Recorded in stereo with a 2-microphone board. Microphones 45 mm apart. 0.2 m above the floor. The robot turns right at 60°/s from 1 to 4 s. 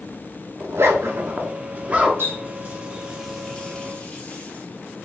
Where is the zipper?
70° right (ahead or behind), 0.8 m; by 2.1 s 20° right (ahead or behind), 0.8 m.